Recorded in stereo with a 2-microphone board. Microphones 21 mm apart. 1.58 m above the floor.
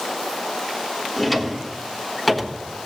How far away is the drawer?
About 1.3 m.